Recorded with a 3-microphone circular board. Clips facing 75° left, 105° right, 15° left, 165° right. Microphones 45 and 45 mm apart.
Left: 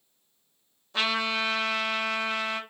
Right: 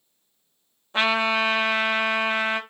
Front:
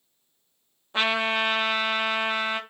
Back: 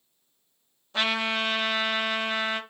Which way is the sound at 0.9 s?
50° right.